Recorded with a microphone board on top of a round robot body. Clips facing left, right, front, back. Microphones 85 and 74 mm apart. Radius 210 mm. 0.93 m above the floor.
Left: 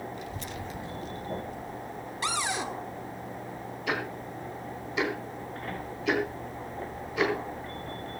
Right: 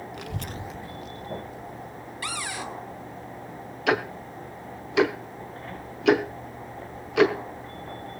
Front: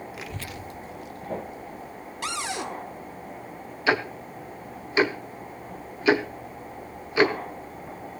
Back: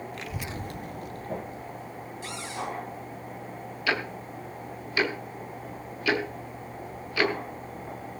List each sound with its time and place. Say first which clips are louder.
0.1 s a child speaking: right 2 dB, back 1 dB; 80° right, 0.9 m; by 3.2 s 125° left, 4 m
2.2 s a cupboard door: left 3 dB, front 5 dB; 25° left, 1.3 m
3.9 s ticking: right 8 dB, front 5 dB; 65° right, 0.9 m